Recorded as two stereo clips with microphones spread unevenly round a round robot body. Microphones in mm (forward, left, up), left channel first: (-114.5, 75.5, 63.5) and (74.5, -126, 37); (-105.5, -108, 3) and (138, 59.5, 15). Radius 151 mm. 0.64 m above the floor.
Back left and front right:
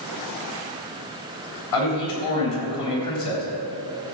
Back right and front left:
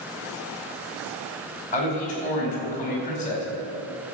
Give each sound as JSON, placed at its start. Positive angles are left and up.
{"t": 1.7, "sound": "a man speaking", "azimuth_deg": 150, "distance_m": 4.0}